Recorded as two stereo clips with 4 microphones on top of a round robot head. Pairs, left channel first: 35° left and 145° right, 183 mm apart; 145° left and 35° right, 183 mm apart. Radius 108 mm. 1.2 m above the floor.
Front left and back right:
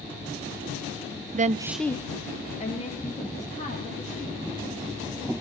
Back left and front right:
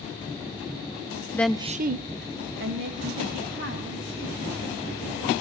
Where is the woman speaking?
145° right, 0.6 m; by 4.4 s 15° right, 4 m.